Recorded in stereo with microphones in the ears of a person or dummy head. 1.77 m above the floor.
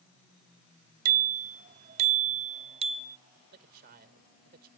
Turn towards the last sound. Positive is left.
turn(degrees=-55)  # may be behind; listen again after turning